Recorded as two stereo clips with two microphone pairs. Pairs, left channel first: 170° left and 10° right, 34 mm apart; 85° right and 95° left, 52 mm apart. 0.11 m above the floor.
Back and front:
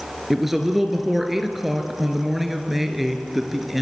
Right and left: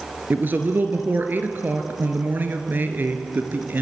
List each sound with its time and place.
0.3 s a man speaking: 75° left, 2 m